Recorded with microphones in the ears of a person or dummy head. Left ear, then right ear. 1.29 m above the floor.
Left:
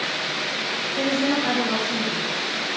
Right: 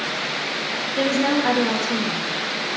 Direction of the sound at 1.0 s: 35° right (ahead or behind).